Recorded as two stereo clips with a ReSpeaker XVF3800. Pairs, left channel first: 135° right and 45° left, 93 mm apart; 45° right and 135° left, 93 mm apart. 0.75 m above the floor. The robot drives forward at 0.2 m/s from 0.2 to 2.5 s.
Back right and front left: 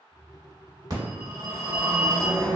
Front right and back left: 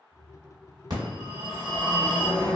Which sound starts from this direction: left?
A phone ringing, at 0.9 s.